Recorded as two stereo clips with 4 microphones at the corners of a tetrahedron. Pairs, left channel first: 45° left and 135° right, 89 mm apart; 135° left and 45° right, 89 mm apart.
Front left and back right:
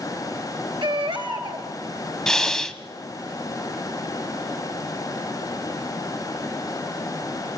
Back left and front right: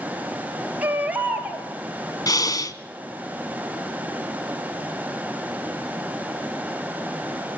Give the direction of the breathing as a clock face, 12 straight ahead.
8 o'clock.